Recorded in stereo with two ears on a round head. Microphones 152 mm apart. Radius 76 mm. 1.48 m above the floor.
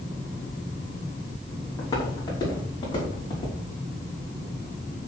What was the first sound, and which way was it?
Footsteps, 25° left (ahead or behind).